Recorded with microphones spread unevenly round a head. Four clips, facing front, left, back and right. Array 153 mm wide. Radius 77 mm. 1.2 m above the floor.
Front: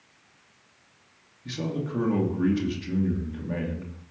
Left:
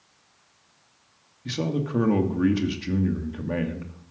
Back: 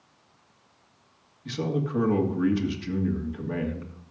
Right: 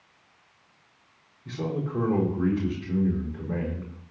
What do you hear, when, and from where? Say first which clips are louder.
1.4 s a man speaking: left 3 dB, back 3 dB; 95° left, 2.5 m